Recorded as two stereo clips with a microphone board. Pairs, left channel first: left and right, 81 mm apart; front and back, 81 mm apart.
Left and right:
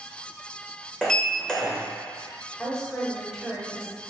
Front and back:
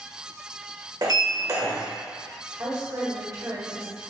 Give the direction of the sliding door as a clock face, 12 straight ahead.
6 o'clock.